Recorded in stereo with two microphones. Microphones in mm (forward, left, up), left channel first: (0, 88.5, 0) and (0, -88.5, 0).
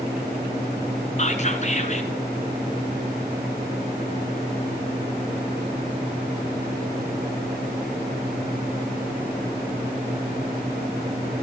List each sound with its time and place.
1.2 s whispering: 40° left (ahead or behind), 1.9 m